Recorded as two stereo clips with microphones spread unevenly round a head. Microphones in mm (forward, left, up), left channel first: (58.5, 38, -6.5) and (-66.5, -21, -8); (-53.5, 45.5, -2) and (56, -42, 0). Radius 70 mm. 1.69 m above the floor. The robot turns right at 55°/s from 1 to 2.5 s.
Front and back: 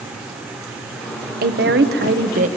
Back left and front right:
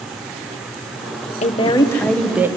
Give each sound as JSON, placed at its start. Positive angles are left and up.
{"t": 1.4, "sound": "a woman speaking", "azimuth_deg": -175, "distance_m": 1.2}